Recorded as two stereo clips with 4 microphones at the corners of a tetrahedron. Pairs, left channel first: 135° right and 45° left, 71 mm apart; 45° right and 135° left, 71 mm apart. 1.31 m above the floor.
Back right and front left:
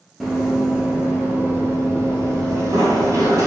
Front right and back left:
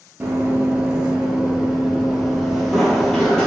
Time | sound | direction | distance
0.2 | running footsteps | 125° left | 1.4 m